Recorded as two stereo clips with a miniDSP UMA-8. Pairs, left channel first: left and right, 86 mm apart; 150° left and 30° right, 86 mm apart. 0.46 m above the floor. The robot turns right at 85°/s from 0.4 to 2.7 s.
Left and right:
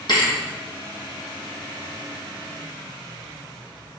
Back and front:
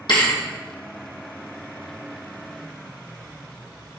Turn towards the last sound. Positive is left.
turn(degrees=-40)